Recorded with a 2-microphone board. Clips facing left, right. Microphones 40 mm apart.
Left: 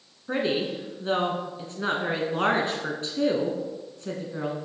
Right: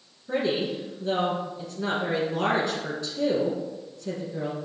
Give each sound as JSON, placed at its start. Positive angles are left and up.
{"t": 0.3, "sound": "a woman speaking", "side_deg": 40, "distance_m": 1.4}